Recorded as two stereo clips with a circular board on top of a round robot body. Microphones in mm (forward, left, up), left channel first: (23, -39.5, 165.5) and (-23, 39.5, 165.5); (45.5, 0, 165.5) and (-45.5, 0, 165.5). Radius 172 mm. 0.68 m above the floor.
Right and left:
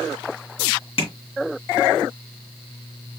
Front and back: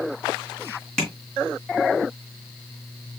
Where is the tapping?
85° right, 3 m.